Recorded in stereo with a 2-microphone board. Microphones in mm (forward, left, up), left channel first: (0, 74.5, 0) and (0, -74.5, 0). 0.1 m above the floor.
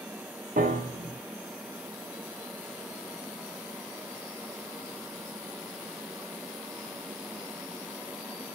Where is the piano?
75° right (ahead or behind), 1.9 m.